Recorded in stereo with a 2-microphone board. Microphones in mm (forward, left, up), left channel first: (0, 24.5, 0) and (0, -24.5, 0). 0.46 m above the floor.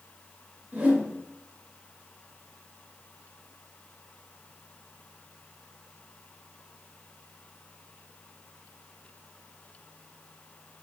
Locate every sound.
0.7 s a whoosh: 30° right (ahead or behind), 1.2 m